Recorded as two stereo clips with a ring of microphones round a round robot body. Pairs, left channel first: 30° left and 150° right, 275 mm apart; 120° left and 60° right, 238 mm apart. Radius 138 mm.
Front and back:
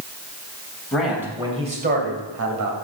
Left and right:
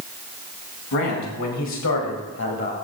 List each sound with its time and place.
0.9 s a man speaking: 120° left, 3 m; by 2.7 s straight behind, 2.5 m